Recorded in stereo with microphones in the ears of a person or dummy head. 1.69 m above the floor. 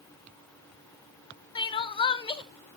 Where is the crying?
25° left (ahead or behind), 0.8 m.